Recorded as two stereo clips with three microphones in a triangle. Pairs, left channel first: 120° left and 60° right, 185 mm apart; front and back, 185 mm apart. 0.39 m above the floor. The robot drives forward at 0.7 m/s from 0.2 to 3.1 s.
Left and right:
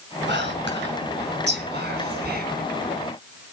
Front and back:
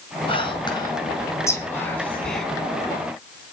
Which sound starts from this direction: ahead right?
Whispering, at 0.3 s.